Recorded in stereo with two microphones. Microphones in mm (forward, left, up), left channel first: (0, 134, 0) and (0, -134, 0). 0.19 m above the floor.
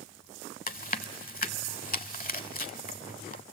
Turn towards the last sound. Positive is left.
turn(degrees=30)  # may be behind; listen again after turning